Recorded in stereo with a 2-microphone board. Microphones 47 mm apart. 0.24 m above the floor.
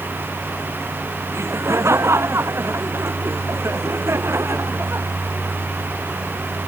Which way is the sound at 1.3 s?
70° right (ahead or behind).